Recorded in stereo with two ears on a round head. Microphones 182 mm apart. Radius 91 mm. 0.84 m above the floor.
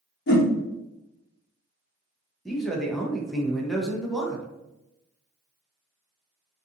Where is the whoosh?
55° left (ahead or behind), 0.8 m.